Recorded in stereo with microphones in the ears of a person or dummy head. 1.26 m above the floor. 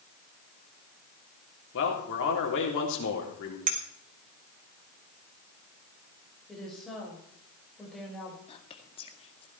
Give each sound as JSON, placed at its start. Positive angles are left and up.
{"t": 1.7, "sound": "a man speaking", "side_deg": 65, "distance_m": 3.5}
{"t": 3.7, "sound": "a clink", "side_deg": -35, "distance_m": 1.1}
{"t": 6.5, "sound": "a woman speaking", "side_deg": 0, "distance_m": 5.0}
{"t": 8.5, "sound": "whispering", "side_deg": 30, "distance_m": 1.9}